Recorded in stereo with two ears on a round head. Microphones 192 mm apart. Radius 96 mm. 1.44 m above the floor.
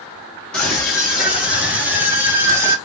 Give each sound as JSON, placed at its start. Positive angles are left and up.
{"t": 0.5, "sound": "a scream", "side_deg": 5, "distance_m": 3.5}